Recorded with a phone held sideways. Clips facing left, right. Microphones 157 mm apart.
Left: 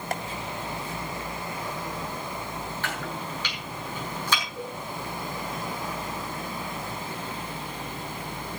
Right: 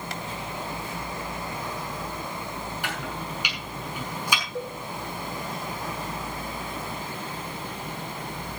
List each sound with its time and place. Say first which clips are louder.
0.1 s tapping: left 8 dB; 50° left (ahead or behind), 1.8 m
2.8 s chopping: even; 10° right (ahead or behind), 6.5 m
4.5 s a cowbell: right 3 dB; 75° right (ahead or behind), 4 m